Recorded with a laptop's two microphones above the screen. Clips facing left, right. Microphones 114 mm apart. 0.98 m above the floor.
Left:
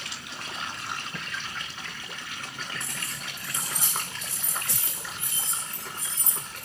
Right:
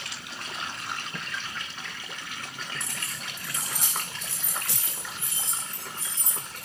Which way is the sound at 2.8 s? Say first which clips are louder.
Even; 70° right (ahead or behind).